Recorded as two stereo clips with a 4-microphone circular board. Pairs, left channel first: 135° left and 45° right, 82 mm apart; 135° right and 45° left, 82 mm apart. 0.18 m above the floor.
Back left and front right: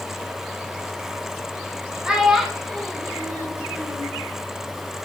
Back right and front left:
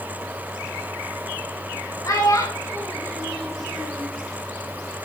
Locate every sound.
2.0 s a child speaking: 120° right, 1.3 m; by 4.1 s 120° left, 1.2 m